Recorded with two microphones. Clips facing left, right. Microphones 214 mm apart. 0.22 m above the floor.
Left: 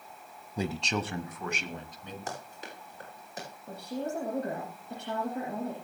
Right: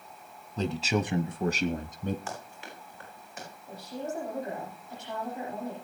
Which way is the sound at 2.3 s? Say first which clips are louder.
Even; 40° left (ahead or behind).